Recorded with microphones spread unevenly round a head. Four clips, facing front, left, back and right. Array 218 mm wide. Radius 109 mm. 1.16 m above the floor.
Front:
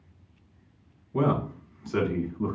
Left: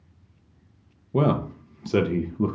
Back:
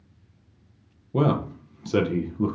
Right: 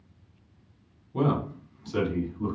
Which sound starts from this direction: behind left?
A man speaking, at 1.1 s.